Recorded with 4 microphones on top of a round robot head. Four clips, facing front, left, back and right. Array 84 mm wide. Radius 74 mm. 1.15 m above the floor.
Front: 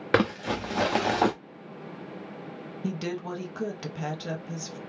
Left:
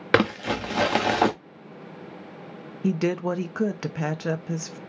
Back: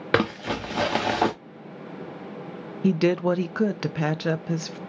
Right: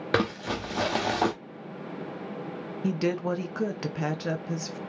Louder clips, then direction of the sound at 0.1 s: Left 5 dB, back 1 dB; 100° left.